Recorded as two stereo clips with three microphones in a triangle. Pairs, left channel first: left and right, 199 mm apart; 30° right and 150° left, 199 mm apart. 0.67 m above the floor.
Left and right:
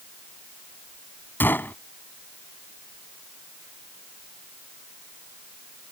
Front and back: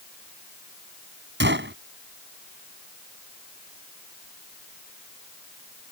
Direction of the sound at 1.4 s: 170° left.